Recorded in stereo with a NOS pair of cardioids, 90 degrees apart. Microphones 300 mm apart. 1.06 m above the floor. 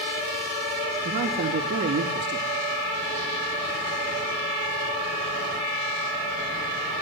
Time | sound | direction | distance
1.1 | a man speaking | 40° right | 2.5 m